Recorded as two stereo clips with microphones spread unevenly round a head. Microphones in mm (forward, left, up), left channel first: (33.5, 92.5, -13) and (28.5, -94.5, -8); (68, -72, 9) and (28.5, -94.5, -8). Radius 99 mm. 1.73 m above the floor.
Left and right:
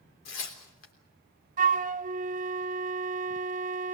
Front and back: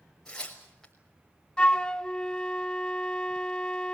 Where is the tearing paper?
110° left, 3.5 m.